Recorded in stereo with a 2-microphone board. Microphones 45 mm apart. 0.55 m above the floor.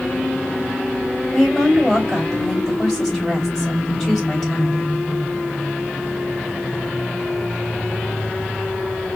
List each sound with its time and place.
1.3 s a woman speaking: 15° left (ahead or behind), 3 m